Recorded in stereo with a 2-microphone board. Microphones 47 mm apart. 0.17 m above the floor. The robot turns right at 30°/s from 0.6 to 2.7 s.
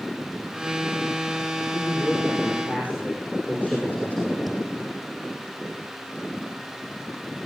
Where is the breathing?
5° left (ahead or behind), 7.5 m.